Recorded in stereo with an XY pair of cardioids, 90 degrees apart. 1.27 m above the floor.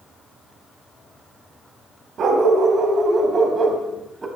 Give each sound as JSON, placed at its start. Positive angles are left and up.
{"t": 2.2, "sound": "a dog barking", "azimuth_deg": -60, "distance_m": 3.0}